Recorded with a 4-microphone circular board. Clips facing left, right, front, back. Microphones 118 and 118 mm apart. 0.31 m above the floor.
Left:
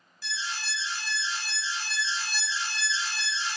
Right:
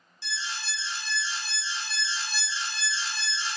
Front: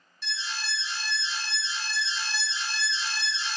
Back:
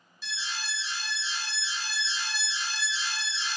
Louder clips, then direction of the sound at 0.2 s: Left 1 dB, front 2 dB; 95° right.